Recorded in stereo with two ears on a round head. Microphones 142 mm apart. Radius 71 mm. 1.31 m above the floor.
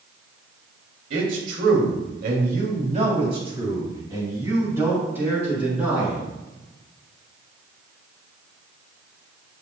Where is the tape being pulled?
No tape being pulled in this recording.